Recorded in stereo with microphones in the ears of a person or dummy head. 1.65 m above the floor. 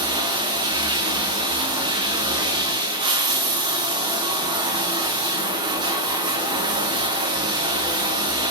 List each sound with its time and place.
0.0 s running water: 20° right (ahead or behind), 1.0 m